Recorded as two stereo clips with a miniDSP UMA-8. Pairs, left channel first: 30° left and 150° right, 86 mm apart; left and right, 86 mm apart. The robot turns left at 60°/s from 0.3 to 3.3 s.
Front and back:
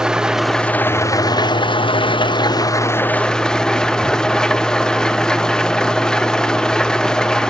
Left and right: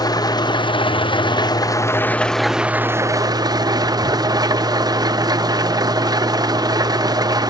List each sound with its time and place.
0.0 s an engine running: 130° left, 0.7 m; by 7.5 s 50° right, 0.7 m